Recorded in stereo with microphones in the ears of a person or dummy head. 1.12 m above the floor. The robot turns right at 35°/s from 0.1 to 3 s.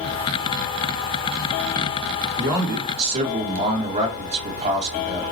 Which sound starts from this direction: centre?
A man speaking, at 2.4 s.